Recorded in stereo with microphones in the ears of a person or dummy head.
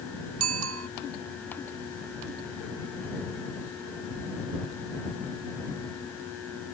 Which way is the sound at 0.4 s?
80° right.